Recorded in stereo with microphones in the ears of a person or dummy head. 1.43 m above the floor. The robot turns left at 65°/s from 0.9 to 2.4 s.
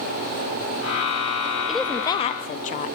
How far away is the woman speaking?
About 1.0 m.